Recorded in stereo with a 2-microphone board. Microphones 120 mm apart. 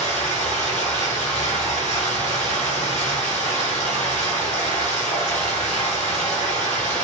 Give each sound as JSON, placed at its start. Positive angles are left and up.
{"t": 0.0, "sound": "running water", "side_deg": 75, "distance_m": 1.1}